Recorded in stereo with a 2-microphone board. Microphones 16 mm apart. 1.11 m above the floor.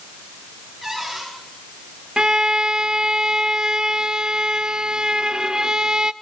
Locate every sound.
0.8 s a cupboard door: centre (ahead or behind), 9.5 m
2.2 s a violin: 50° right (ahead or behind), 0.7 m